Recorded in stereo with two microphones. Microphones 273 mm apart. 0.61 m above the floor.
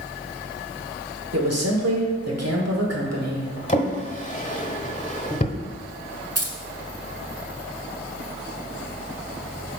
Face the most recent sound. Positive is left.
turn(degrees=-60)  # may be behind; listen again after turning